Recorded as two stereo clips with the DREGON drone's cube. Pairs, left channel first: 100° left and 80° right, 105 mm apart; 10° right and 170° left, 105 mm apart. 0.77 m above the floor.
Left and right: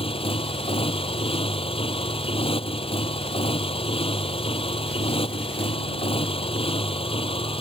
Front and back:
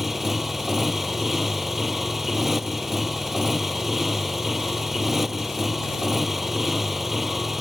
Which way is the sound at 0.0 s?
80° left.